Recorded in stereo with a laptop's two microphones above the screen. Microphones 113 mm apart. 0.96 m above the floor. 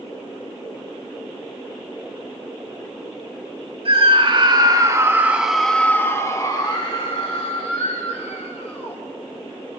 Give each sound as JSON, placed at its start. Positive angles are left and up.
{"t": 3.9, "sound": "a scream", "side_deg": -55, "distance_m": 1.9}